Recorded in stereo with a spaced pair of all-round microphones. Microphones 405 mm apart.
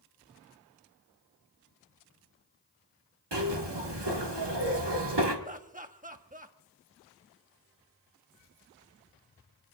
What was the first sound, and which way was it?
A zipper, 80° right.